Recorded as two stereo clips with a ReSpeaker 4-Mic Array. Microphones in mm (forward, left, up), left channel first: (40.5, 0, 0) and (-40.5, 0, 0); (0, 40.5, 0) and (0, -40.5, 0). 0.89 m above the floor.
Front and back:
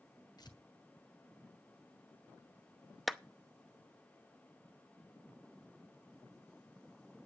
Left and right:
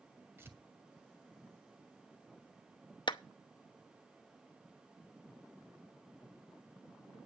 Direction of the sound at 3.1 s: 90° left.